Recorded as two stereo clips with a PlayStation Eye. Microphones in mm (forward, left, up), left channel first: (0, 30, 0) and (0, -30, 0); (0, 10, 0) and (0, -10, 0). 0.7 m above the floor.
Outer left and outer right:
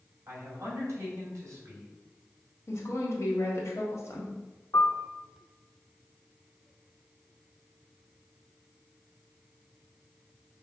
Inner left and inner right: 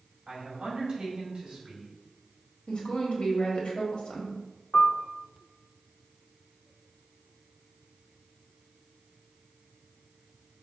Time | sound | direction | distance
0.3 | a man speaking | 55° right (ahead or behind) | 1.8 m
2.7 | a woman speaking | 55° left (ahead or behind) | 1.4 m
4.7 | a piano | 65° left (ahead or behind) | 0.6 m